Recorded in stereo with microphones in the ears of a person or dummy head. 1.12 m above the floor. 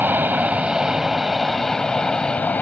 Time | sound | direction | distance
0.0 | an aircraft | 15° right (ahead or behind) | ?